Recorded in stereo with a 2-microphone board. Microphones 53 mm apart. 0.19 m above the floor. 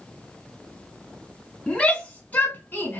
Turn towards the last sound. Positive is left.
turn(degrees=40)  # may be behind; listen again after turning